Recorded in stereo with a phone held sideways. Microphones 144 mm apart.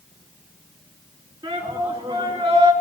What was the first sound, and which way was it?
A shout, 25° right (ahead or behind).